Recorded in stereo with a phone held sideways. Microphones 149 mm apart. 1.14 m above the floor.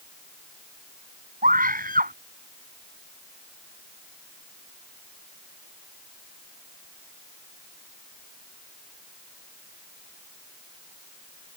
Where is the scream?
70° right (ahead or behind).